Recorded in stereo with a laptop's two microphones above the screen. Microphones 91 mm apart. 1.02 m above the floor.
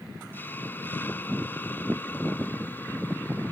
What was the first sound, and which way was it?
A hiss, 20° left (ahead or behind).